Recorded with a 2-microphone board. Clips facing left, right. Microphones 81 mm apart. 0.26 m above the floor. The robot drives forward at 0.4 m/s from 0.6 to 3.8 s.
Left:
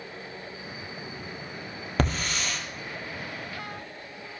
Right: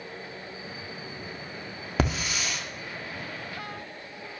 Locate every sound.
2.0 s a hiss: 5° right (ahead or behind), 2.0 m